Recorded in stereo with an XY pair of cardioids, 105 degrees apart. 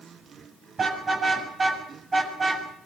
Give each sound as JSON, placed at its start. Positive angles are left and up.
{"t": 0.8, "sound": "a car horn", "azimuth_deg": -40, "distance_m": 7.0}